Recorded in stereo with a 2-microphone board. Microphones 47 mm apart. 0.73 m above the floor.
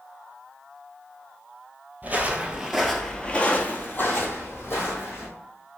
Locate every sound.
2.0 s footsteps: 35° right (ahead or behind), 0.8 m; by 5.3 s 60° left (ahead or behind), 1.7 m